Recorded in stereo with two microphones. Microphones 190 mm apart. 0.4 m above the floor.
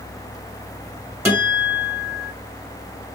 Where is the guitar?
15° right (ahead or behind), 1.6 m.